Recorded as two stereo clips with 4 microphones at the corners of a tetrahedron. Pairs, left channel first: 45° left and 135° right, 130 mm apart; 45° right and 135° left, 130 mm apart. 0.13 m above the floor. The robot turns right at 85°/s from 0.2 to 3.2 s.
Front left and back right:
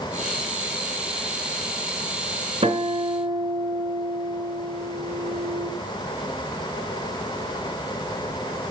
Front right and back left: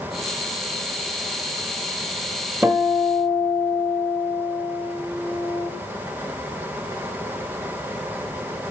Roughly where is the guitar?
Behind.